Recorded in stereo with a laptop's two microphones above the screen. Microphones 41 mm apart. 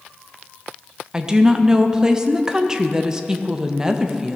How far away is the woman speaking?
About 0.7 m.